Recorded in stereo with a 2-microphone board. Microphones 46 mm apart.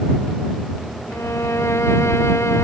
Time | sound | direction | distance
1.1 | a violin | 80° left | ?